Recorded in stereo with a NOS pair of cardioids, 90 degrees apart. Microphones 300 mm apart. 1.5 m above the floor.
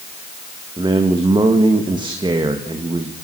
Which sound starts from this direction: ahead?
A man speaking, at 0.8 s.